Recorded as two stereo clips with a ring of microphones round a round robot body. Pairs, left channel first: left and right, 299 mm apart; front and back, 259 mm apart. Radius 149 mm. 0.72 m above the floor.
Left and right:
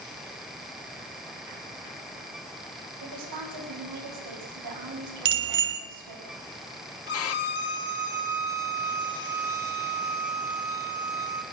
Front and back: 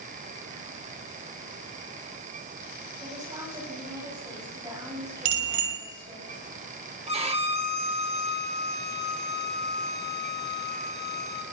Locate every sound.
3.0 s a woman speaking: 105° right, 6.5 m
5.2 s a bicycle bell: 145° right, 2.5 m
7.1 s a violin: 120° left, 1.6 m